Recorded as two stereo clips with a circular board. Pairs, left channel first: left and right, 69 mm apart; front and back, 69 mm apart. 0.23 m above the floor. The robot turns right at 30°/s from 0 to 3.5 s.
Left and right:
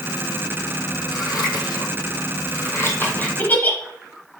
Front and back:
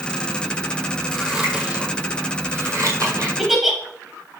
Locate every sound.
1.1 s scissors: 90° left, 1.3 m; by 3.3 s 155° left, 1.3 m
3.4 s a giggle: 95° left, 0.7 m; by 3.8 s 100° left, 0.7 m